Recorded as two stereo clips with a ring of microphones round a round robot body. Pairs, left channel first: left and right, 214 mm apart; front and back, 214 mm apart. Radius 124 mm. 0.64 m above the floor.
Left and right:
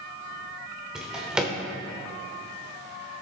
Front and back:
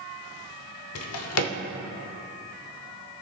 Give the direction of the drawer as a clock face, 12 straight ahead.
12 o'clock.